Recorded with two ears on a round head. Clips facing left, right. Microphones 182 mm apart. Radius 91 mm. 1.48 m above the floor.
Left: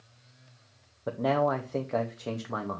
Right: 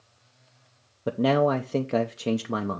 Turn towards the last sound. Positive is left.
turn(degrees=-40)  # may be behind; listen again after turning